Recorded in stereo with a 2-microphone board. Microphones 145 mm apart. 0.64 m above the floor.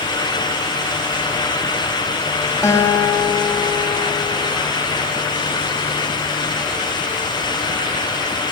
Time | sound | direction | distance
2.6 | a guitar | 20° left (ahead or behind) | 1.1 m